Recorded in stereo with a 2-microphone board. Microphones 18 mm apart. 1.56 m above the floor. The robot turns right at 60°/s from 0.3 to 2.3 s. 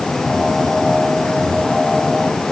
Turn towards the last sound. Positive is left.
No sound to turn to.